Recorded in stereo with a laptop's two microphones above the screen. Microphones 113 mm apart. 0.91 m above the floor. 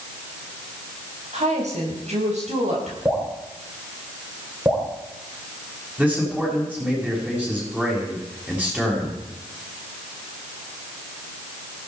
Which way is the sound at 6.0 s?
15° right (ahead or behind).